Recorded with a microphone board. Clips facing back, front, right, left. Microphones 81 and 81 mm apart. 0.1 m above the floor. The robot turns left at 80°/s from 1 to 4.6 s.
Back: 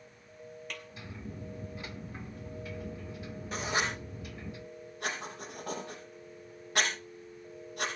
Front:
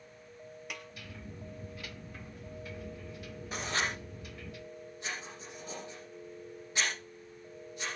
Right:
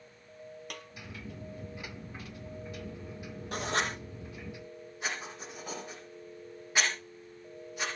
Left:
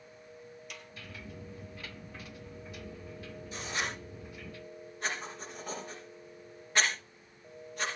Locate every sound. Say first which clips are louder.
0.7 s a snare drum: front 2 dB, right 3 dB; 75° right, 1.7 m
3.5 s writing: back 2 dB, right 5 dB; 85° right, 4.5 m; by 7.9 s 175° right, 4.5 m